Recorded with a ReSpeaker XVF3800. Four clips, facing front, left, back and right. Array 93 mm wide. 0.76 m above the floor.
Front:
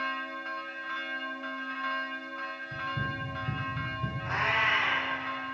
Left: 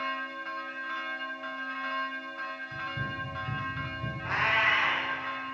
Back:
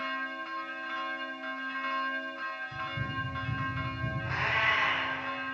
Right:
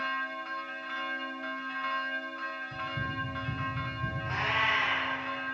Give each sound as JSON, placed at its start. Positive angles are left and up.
{"t": 2.7, "sound": "running footsteps", "azimuth_deg": 10, "distance_m": 4.5}
{"t": 4.2, "sound": "a cat meowing", "azimuth_deg": 75, "distance_m": 5.0}